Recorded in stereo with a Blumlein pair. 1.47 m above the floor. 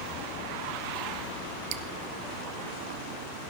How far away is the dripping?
About 0.7 m.